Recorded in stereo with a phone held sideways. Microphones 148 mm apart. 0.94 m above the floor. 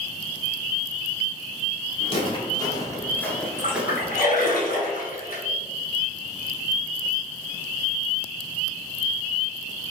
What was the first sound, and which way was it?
Footsteps, 40° left (ahead or behind).